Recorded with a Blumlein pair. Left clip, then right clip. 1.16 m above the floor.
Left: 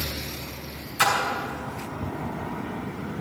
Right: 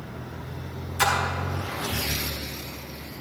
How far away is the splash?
About 4 m.